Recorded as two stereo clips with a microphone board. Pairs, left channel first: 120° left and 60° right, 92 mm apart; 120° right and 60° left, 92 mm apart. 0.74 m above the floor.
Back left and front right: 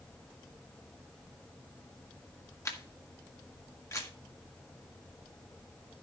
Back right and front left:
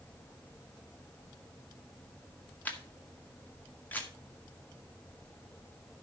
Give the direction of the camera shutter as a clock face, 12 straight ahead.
6 o'clock.